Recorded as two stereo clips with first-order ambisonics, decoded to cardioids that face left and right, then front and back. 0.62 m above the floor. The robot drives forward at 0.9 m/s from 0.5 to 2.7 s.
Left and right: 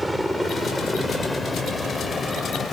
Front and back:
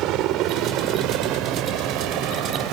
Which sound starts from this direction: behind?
A helicopter, at 0.0 s.